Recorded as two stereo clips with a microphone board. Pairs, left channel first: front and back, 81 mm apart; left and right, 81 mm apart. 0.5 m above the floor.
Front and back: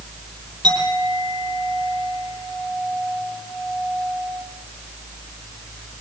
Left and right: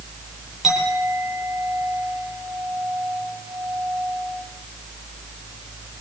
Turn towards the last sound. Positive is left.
turn(degrees=-175)